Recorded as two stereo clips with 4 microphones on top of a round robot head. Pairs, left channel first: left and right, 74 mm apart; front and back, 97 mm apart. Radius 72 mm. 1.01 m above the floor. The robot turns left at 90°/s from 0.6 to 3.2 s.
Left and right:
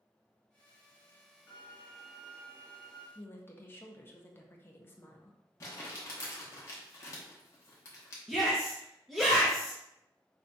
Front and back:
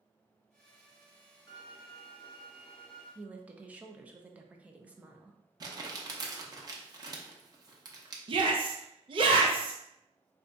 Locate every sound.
1.5 s a violin: 50° left, 1.7 m; by 3.0 s 95° right, 1.7 m
3.1 s a woman speaking: 120° left, 0.6 m; by 5.4 s 115° left, 0.6 m
5.6 s crumpling: 135° left, 0.9 m
8.3 s a shout: straight behind, 0.7 m